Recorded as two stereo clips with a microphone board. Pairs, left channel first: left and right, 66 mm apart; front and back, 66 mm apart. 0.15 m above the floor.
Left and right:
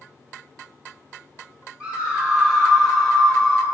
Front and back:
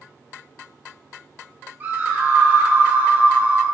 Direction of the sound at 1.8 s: 145° right.